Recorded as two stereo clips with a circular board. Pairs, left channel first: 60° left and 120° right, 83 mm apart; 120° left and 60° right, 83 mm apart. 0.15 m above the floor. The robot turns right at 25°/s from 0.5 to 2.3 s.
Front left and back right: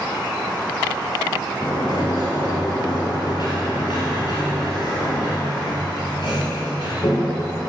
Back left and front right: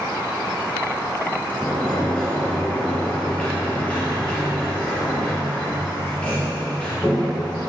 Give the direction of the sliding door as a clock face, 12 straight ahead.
11 o'clock.